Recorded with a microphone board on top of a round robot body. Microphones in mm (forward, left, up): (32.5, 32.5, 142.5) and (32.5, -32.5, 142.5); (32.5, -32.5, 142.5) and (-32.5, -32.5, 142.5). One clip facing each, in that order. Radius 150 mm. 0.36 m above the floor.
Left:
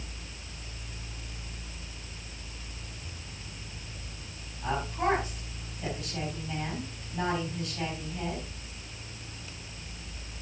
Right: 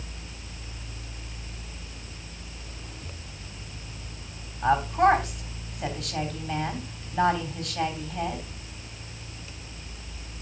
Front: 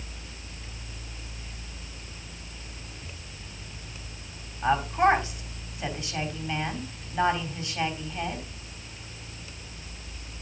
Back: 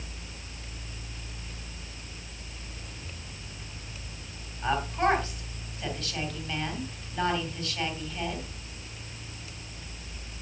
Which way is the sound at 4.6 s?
70° right.